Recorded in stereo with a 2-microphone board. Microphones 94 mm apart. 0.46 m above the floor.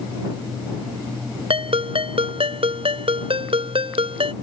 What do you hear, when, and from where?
1.5 s a ringtone: 80° right